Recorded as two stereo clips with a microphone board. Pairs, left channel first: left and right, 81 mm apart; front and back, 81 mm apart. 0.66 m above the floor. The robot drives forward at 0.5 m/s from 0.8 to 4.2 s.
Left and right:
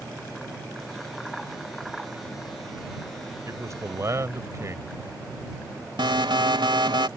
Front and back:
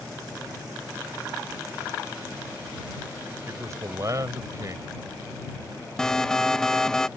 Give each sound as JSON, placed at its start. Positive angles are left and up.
{"t": 3.5, "sound": "a man speaking", "azimuth_deg": -130}
{"t": 6.0, "sound": "an alarm", "azimuth_deg": -85}